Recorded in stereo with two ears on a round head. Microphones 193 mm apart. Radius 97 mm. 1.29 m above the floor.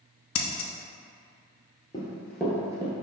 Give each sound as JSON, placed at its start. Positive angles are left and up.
{"t": 0.3, "sound": "scissors", "side_deg": 70, "distance_m": 0.6}
{"t": 1.9, "sound": "running footsteps", "side_deg": 20, "distance_m": 1.4}